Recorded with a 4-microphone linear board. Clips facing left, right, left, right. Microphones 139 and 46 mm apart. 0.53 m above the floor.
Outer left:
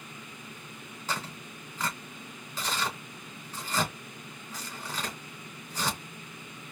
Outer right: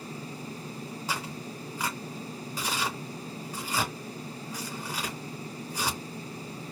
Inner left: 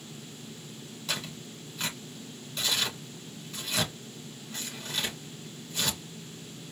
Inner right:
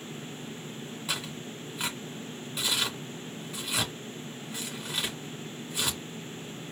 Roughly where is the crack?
I don't hear a crack.